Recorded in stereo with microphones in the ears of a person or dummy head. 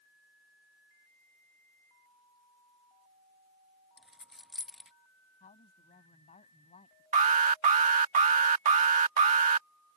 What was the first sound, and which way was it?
A dropped coin, centre (ahead or behind).